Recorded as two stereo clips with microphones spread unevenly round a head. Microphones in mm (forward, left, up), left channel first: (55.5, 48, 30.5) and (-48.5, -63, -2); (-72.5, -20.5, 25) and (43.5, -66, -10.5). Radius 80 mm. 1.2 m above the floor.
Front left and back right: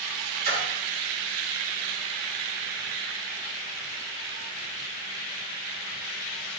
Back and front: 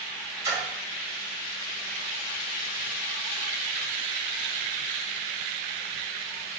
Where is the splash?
90° right, 1.4 m.